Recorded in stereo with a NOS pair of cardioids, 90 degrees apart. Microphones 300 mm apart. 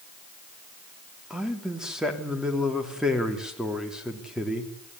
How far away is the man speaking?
About 3.5 m.